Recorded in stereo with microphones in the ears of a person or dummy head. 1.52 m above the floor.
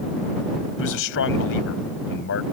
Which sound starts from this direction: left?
A man speaking, at 0.8 s.